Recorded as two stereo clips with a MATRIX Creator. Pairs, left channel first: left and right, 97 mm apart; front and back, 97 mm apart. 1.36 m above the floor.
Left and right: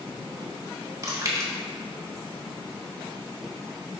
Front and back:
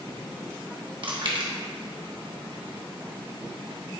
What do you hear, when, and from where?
1.0 s chewing: 150° right, 1.3 m